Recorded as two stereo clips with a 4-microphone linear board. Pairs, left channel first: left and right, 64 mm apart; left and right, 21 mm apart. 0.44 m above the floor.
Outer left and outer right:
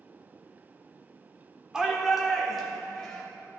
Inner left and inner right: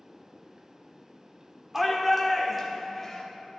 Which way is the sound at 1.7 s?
10° right (ahead or behind).